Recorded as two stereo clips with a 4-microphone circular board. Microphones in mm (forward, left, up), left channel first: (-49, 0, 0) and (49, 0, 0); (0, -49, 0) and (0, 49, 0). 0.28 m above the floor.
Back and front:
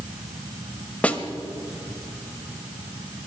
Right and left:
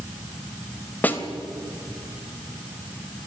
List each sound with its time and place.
1.0 s a snare drum: 125° right, 1.6 m